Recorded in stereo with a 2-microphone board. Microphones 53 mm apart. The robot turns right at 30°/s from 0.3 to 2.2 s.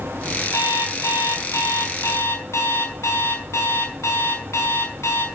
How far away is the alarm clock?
About 6 m.